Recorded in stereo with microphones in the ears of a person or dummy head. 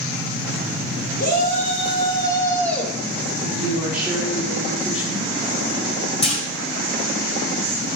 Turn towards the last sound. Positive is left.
turn(degrees=35)  # may be behind; listen again after turning